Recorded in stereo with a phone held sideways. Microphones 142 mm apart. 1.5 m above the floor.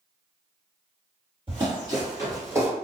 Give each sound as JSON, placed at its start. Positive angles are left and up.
{"t": 1.5, "sound": "running footsteps", "side_deg": -35, "distance_m": 1.8}